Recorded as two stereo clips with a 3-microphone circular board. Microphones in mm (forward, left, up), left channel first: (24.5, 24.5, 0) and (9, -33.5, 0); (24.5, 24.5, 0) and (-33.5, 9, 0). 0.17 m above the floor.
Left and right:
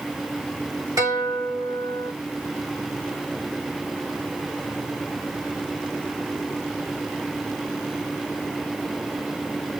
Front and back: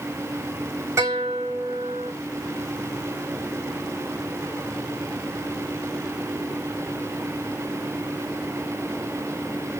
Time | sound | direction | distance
1.0 | a guitar | 125° right | 5 m